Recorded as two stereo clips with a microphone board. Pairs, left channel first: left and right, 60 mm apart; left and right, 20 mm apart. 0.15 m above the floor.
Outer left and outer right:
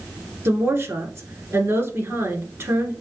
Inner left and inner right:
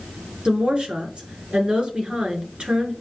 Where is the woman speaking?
50° right (ahead or behind), 1.9 m.